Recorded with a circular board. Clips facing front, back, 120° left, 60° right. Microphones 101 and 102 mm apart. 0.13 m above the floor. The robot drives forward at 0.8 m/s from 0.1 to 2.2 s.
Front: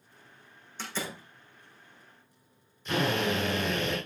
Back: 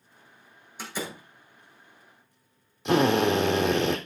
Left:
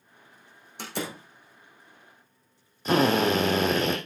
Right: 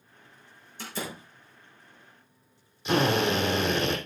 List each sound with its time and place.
0.8 s a door slam: 100° left, 3.5 m; by 1.2 s 105° left, 4 m
2.9 s a drill: 165° left, 3 m